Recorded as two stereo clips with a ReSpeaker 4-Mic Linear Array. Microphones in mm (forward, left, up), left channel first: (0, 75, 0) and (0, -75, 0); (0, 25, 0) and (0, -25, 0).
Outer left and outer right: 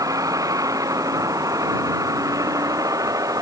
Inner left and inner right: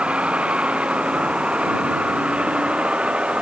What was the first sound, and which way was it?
A vehicle, 20° right (ahead or behind).